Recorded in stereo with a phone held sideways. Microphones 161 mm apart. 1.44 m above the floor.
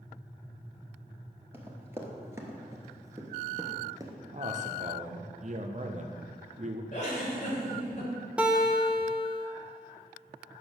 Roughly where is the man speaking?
Right.